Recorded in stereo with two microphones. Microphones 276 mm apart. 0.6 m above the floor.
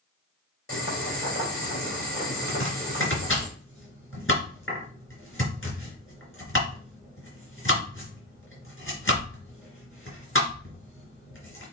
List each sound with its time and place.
0.7 s boiling: 50° left (ahead or behind), 3.5 m
2.5 s chopping: 45° left (ahead or behind), 3.5 m